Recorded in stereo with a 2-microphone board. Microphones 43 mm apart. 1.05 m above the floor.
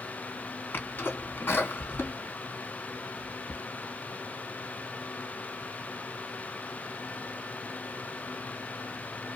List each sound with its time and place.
0.7 s a sneeze: 65° left (ahead or behind), 2 m